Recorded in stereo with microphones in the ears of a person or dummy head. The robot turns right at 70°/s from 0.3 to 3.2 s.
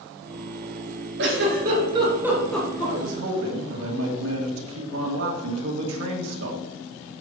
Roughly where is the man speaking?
Right.